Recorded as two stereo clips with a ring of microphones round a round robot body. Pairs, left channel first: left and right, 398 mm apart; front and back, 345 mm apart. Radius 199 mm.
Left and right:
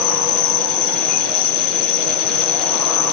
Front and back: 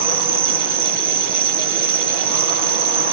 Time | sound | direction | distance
0.0 | an insect | 125° left | 1.2 m